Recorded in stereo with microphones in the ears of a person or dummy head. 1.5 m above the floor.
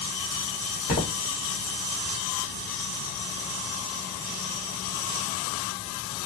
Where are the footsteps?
35° left (ahead or behind), 1.8 m.